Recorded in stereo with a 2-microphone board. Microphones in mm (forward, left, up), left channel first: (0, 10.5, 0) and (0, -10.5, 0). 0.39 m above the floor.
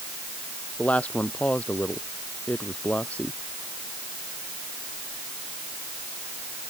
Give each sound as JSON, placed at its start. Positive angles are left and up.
{"t": 0.8, "sound": "a woman speaking", "side_deg": 80}